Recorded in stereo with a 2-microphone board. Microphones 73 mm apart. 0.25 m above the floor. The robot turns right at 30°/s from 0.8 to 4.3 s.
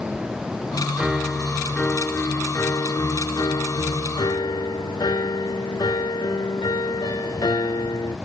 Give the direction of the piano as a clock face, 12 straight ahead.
12 o'clock.